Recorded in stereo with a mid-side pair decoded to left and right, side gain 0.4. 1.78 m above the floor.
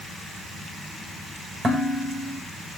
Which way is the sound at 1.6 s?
30° right.